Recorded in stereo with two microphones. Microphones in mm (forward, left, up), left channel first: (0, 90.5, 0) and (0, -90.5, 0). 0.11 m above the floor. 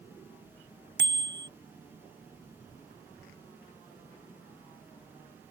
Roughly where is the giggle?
No giggle in this recording.